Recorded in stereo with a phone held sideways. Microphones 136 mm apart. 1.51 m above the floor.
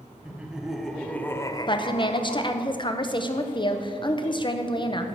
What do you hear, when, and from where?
0.2 s laughter: 10° right (ahead or behind), 1.1 m; by 2.7 s 65° left (ahead or behind), 0.7 m
1.7 s a woman speaking: 35° left (ahead or behind), 0.6 m